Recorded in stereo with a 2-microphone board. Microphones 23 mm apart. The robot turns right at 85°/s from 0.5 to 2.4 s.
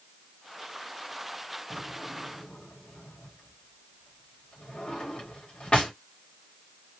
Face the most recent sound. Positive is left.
turn(degrees=50)  # may be behind; listen again after turning